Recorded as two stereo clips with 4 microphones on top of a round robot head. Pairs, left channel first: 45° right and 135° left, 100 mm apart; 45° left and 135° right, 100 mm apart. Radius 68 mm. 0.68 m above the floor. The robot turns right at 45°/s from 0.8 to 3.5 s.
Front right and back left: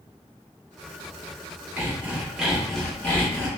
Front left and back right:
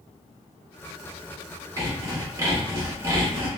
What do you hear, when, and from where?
1.8 s sawing: 165° right, 1.2 m; by 3.5 s 90° right, 1.2 m